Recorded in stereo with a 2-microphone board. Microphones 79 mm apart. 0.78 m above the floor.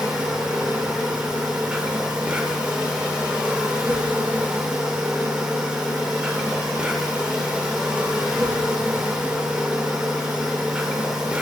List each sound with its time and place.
0.0 s an insect: 15° right (ahead or behind), 0.7 m